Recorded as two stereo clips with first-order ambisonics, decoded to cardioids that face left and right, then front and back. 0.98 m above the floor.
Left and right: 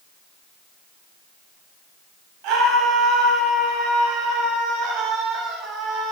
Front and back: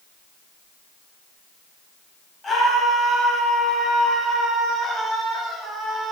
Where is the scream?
75° right, 6.5 m; by 6.1 s 95° right, 6 m.